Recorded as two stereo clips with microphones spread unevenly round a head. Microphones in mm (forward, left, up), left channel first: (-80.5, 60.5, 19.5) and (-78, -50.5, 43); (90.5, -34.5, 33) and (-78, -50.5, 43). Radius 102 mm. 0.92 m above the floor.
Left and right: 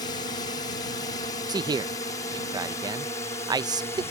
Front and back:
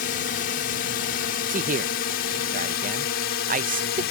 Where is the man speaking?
145° right.